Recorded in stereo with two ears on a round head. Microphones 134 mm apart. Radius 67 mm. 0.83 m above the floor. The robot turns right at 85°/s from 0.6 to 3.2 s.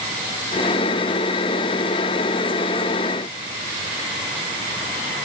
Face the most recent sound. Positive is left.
No sound to turn to.